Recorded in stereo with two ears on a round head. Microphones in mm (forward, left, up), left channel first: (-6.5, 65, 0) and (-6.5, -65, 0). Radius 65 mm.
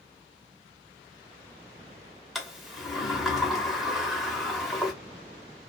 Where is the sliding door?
Centre (ahead or behind), 0.7 m.